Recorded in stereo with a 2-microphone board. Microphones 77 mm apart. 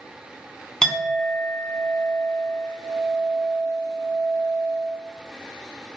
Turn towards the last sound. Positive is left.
turn(degrees=10)  # may be behind; listen again after turning